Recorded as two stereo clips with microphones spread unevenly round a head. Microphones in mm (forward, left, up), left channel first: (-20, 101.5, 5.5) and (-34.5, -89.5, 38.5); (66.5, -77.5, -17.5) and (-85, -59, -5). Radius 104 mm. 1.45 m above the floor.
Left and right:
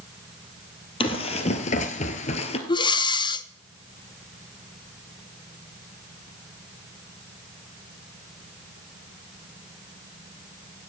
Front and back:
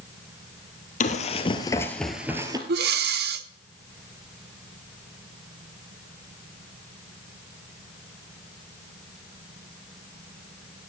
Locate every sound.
1.0 s running footsteps: 15° left, 2 m; by 2.6 s 140° left, 1.7 m
2.7 s breathing: 155° left, 0.8 m